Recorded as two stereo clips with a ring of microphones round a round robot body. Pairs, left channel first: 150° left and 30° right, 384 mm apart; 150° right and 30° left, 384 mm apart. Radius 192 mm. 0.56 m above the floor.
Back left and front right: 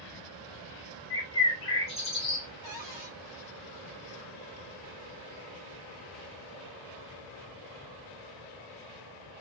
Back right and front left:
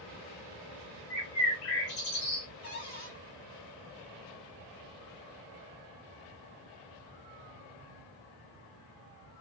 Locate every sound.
1.1 s a bird: 135° right, 2.0 m
2.6 s a cupboard door: 135° right, 2 m